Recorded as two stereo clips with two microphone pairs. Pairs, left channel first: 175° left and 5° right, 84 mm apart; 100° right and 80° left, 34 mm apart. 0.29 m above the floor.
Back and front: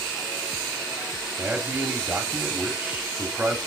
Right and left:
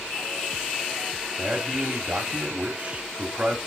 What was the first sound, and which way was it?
A man speaking, 55° left.